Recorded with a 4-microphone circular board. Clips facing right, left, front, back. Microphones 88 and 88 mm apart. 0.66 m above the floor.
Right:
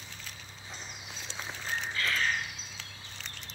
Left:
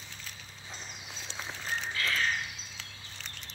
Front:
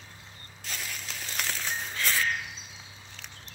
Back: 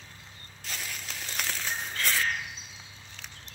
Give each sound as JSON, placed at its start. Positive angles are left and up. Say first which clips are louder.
{"t": 1.6, "sound": "a bird", "louder": "even, even", "azimuth_deg": -155, "distance_m": 3.0}